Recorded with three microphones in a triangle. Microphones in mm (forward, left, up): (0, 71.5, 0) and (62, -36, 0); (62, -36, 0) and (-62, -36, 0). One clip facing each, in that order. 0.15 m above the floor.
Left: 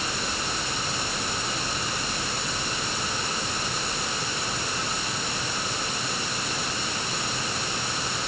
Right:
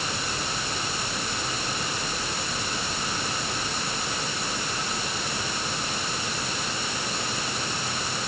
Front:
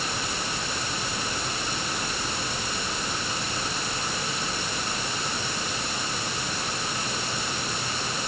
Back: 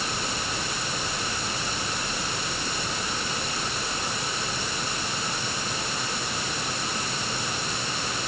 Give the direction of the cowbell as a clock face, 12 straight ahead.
I don't hear a cowbell.